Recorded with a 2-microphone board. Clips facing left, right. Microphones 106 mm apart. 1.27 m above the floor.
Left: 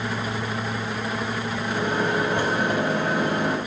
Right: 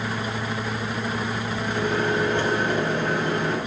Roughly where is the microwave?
Centre.